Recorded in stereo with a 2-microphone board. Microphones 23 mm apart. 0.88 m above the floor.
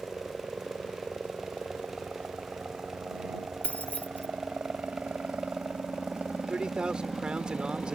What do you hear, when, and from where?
0.0 s a helicopter: 55° right (ahead or behind)
3.6 s keys jangling: 80° left
6.5 s a man speaking: 45° right (ahead or behind)